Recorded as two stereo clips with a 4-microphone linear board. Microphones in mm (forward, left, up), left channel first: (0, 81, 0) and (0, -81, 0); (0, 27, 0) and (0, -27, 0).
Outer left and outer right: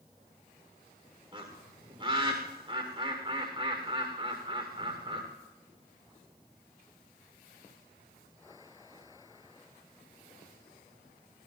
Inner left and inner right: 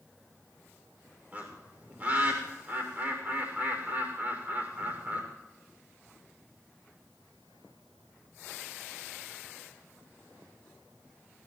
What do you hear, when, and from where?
1.3 s a bird: 35° right (ahead or behind), 6.5 m